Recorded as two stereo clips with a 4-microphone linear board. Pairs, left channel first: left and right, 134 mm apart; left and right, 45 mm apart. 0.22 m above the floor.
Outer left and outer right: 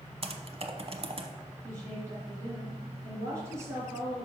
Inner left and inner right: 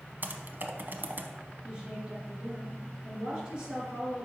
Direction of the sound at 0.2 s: 45° right (ahead or behind).